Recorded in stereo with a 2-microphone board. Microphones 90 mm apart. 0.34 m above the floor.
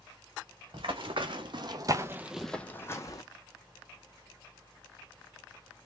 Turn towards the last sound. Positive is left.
turn(degrees=40)  # may be behind; listen again after turning